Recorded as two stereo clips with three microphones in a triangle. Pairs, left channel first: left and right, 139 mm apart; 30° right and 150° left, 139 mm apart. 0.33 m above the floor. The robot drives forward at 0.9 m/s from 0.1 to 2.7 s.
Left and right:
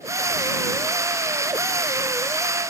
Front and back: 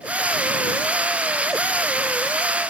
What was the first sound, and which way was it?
Only background noise.